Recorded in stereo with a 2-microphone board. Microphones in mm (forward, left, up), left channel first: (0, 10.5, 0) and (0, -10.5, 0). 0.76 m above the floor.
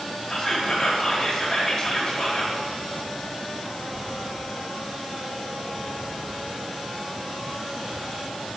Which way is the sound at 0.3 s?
15° left (ahead or behind).